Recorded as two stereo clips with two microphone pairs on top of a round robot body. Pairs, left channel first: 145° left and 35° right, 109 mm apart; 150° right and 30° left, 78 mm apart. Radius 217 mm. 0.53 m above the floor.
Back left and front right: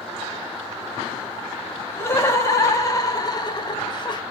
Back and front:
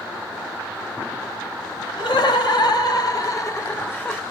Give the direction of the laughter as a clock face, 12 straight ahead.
5 o'clock.